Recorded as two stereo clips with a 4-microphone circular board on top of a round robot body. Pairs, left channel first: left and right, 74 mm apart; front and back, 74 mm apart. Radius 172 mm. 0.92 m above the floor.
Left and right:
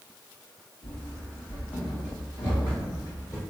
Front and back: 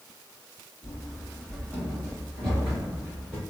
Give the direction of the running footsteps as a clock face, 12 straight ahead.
8 o'clock.